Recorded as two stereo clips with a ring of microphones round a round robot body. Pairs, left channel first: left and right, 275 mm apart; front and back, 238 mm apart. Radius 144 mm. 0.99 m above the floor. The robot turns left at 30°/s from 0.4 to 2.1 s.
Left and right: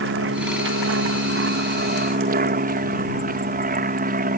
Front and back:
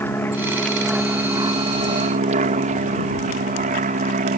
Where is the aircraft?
80° right; by 4.4 s 135° right.